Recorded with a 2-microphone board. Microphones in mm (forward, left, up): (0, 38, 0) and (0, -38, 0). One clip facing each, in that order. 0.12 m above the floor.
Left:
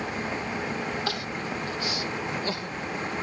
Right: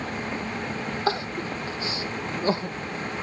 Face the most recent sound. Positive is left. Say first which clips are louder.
# right 4 dB
turn(degrees=-30)  # may be behind; listen again after turning